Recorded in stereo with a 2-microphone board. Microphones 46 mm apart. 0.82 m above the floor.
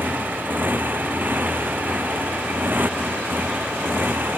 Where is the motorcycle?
40° right (ahead or behind).